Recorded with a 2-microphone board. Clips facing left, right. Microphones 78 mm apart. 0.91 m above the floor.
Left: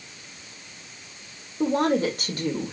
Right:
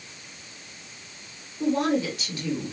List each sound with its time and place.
1.6 s a woman speaking: 50° left (ahead or behind), 3 m